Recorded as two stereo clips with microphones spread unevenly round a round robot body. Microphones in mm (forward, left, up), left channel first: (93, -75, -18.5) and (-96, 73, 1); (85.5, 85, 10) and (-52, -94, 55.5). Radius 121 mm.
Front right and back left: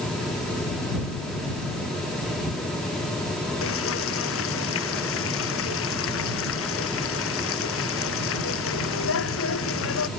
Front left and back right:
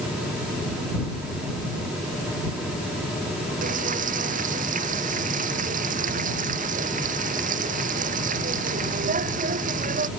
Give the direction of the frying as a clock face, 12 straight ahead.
2 o'clock.